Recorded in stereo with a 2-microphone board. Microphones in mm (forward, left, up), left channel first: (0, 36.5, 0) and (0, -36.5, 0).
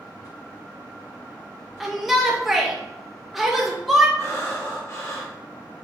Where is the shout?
Centre (ahead or behind), 0.5 m.